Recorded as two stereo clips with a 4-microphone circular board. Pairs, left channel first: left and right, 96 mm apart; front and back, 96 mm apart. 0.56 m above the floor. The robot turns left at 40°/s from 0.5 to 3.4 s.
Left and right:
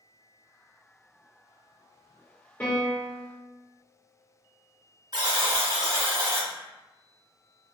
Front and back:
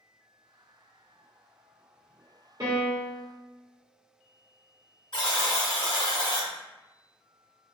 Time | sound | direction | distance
2.6 | a piano | 155° left | 1.3 m
5.1 | a buzzer | 40° right | 1.3 m